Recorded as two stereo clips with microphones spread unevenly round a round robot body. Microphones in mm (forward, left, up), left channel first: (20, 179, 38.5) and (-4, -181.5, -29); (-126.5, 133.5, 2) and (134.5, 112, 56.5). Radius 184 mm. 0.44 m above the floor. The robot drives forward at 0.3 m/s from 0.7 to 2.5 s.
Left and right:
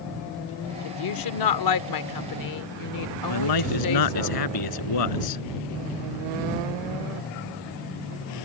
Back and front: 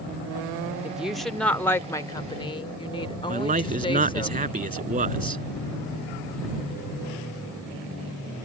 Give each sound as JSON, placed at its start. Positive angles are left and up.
{"t": 0.8, "sound": "a woman speaking", "azimuth_deg": 90}
{"t": 3.3, "sound": "a man speaking", "azimuth_deg": 55}